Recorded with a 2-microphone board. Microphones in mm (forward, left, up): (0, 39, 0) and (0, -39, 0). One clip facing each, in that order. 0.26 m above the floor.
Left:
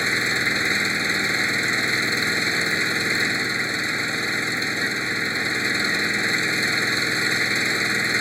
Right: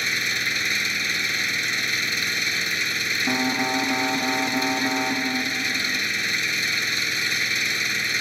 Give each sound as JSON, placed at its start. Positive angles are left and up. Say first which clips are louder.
{"t": 0.0, "sound": "an engine running", "louder": "left 4 dB", "side_deg": 30}
{"t": 3.3, "sound": "an alarm", "louder": "right 2 dB", "side_deg": -80}